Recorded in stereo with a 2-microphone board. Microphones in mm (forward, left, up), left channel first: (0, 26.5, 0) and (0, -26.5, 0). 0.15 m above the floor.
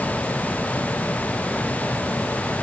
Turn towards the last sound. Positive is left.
No sound to turn to.